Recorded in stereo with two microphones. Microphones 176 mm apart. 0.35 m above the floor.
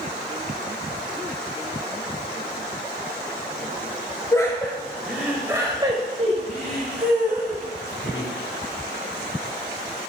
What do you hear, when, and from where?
4.3 s laughter: 20° left (ahead or behind), 2 m; by 8.3 s 65° right (ahead or behind), 3.5 m